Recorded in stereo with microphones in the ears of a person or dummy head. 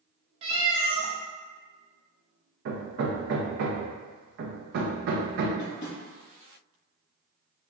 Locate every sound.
0.4 s a cat meowing: 35° right (ahead or behind), 0.8 m
2.6 s hammering: 60° right (ahead or behind), 0.6 m
5.6 s tapping: 40° left (ahead or behind), 1.7 m